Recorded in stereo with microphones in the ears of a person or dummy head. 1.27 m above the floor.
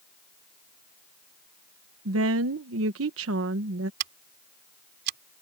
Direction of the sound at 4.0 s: 65° right (ahead or behind).